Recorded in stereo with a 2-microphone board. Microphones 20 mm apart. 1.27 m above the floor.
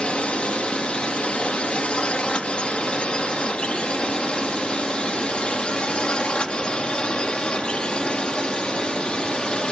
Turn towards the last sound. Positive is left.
turn(degrees=45)  # may be behind; listen again after turning